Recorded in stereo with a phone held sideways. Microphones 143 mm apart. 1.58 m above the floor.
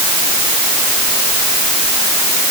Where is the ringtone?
I don't hear a ringtone.